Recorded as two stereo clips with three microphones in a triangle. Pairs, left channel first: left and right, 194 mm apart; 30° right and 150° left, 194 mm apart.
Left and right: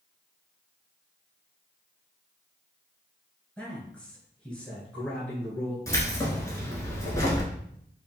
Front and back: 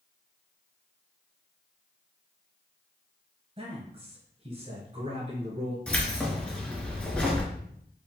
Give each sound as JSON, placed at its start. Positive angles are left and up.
{"t": 3.6, "sound": "a man speaking", "azimuth_deg": 170, "distance_m": 1.4}
{"t": 5.9, "sound": "keys jangling", "azimuth_deg": 45, "distance_m": 1.1}